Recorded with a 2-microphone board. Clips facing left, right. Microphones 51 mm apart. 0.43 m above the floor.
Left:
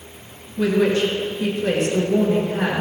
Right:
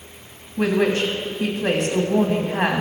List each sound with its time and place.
0.6 s a woman speaking: 55° right (ahead or behind), 2.5 m